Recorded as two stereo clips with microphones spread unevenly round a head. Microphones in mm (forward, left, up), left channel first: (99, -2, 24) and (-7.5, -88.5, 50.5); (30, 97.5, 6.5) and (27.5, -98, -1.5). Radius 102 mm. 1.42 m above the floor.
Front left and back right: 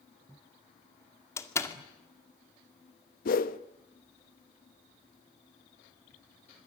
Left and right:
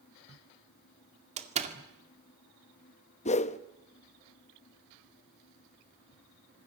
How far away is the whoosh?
About 0.9 m.